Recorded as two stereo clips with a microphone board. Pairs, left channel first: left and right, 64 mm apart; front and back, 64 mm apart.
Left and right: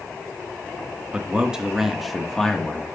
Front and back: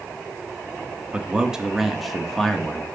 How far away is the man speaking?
About 1.2 m.